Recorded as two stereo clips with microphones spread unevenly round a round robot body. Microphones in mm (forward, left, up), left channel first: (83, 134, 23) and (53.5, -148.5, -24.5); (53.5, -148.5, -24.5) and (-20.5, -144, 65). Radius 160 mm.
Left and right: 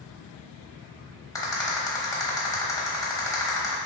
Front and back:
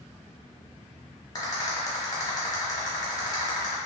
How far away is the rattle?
About 1.1 m.